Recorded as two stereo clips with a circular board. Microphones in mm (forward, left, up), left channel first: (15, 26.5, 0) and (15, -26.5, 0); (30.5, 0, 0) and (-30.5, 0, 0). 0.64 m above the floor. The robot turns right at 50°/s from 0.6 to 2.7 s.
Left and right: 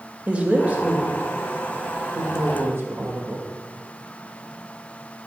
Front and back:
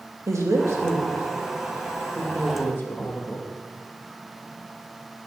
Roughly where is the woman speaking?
Behind right.